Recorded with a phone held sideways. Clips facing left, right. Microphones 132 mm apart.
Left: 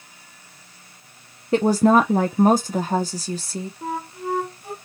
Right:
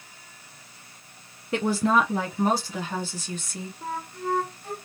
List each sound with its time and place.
1.5 s a woman speaking: 35° left (ahead or behind), 0.6 m
3.8 s a flute: 15° left (ahead or behind), 1.1 m